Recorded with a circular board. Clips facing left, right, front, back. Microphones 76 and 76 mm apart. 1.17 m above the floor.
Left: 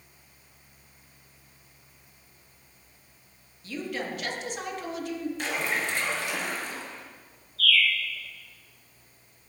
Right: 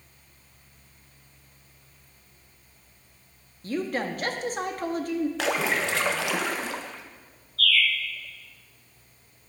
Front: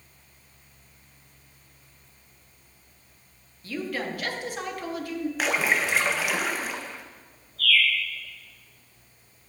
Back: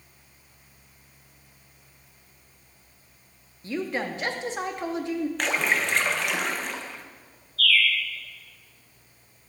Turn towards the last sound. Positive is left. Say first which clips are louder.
# even, even
turn(degrees=-70)